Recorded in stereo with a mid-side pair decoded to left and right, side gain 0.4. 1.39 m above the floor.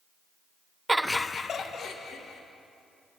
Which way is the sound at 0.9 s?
20° right.